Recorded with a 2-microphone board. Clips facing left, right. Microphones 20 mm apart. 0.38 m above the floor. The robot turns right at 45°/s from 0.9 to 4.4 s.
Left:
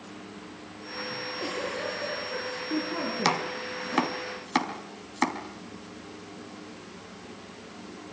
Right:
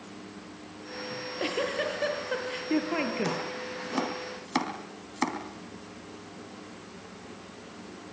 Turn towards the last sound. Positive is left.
turn(degrees=15)  # may be behind; listen again after turning